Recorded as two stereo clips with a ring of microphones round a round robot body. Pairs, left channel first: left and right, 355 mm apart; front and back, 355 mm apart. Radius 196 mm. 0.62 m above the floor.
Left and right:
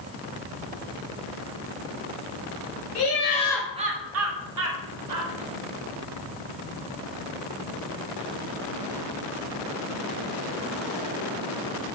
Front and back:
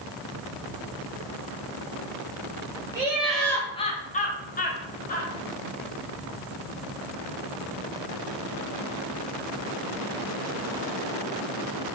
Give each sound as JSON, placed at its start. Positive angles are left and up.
{"t": 3.0, "sound": "laughter", "azimuth_deg": 100, "distance_m": 0.7}